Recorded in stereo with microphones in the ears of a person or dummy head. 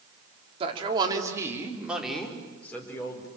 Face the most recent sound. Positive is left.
turn(degrees=15)  # may be behind; listen again after turning